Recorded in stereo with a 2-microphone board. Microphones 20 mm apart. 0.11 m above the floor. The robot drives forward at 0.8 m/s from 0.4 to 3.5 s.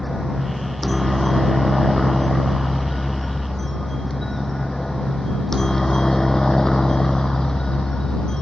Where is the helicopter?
5° right (ahead or behind); by 8.4 s 35° left (ahead or behind).